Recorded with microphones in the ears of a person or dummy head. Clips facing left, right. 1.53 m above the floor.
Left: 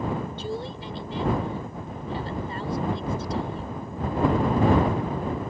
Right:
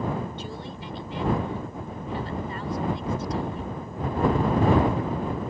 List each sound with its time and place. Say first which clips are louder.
0.4 s a woman speaking: left 4 dB; 30° left (ahead or behind)